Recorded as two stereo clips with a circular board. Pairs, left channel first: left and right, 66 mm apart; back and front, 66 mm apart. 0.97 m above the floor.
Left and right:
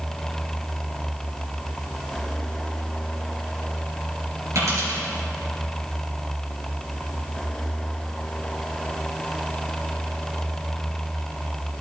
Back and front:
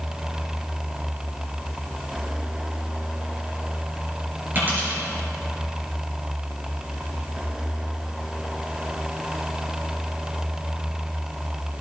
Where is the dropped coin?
55° right, 4 m.